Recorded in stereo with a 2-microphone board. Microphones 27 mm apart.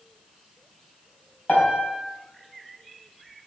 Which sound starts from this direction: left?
A piano, at 1.5 s.